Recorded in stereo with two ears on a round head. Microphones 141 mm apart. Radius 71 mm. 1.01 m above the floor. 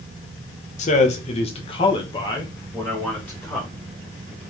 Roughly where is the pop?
I don't hear a pop.